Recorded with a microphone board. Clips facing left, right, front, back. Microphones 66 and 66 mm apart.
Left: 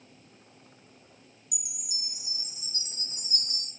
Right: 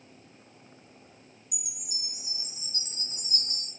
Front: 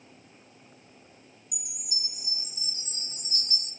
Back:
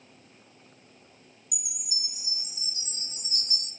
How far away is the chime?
About 1.0 m.